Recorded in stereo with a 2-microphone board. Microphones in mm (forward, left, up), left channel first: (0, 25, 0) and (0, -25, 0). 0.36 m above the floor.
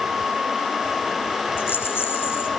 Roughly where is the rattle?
Left.